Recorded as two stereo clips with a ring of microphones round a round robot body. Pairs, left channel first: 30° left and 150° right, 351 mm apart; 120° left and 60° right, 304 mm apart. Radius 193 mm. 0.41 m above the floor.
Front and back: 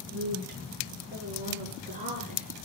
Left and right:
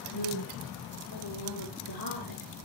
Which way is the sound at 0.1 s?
150° left.